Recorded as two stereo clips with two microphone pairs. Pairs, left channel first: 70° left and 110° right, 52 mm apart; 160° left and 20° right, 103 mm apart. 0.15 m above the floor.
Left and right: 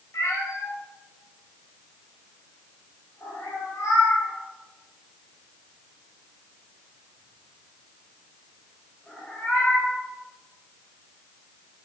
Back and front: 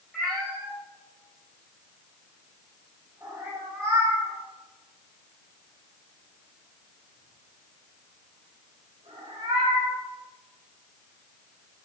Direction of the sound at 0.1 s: 75° left.